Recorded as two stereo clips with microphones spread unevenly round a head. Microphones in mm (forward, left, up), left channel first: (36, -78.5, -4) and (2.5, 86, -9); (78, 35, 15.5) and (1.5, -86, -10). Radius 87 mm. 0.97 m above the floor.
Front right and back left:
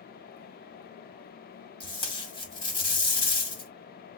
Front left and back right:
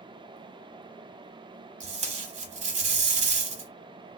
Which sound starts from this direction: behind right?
Tape being pulled, at 1.8 s.